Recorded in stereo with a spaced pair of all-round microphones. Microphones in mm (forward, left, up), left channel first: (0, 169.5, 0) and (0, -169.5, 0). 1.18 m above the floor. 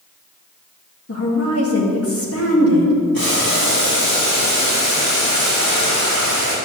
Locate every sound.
1.1 s a woman speaking: 40° left (ahead or behind), 2 m
3.1 s boiling: 85° left, 4 m